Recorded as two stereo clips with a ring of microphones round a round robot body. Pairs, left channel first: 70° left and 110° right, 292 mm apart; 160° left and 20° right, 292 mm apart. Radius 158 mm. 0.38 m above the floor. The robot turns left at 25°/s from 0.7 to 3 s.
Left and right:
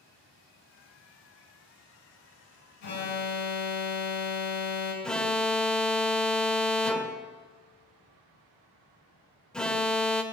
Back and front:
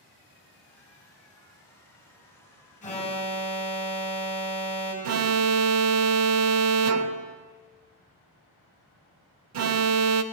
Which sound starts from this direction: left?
An alarm, at 2.8 s.